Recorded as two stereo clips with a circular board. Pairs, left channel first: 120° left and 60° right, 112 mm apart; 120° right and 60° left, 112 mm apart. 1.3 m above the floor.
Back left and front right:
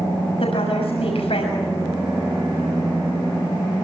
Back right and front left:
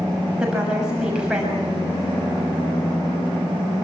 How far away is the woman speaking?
About 6.5 m.